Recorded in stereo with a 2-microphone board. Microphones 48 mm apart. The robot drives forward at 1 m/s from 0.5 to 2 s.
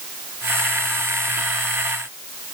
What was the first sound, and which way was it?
Only background noise.